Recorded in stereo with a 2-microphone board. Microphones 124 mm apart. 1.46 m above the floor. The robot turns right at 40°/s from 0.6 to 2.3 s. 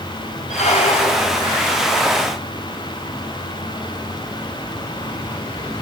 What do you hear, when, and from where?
0.5 s a squeak: 75° left, 3 m; by 1.4 s 105° left, 3 m